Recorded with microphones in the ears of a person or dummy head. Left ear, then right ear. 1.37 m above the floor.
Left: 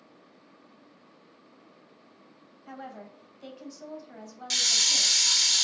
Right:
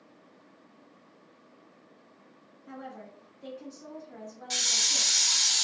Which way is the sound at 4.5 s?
40° left (ahead or behind).